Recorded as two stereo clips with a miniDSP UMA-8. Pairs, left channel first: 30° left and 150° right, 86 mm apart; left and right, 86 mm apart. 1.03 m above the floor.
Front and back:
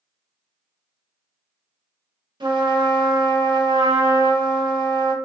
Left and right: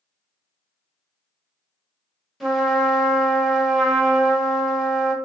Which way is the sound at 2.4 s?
Straight behind.